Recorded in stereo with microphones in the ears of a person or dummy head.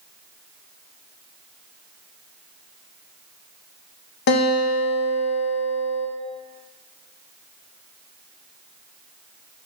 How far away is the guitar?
About 0.8 m.